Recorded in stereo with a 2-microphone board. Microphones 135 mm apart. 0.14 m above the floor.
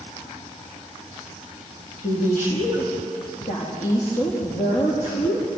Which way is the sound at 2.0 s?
70° left (ahead or behind).